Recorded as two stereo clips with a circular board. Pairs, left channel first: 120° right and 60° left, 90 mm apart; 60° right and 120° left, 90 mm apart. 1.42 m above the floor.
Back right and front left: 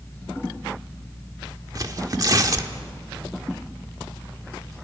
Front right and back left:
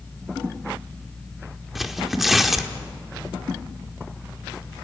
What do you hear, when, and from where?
1.8 s tearing paper: 30° left, 1.4 m